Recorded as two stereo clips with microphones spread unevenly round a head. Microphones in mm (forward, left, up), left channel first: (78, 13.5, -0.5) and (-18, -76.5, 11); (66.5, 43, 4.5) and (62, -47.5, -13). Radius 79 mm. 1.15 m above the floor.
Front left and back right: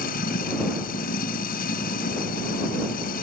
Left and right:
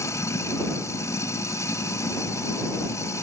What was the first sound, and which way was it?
Running water, 35° left.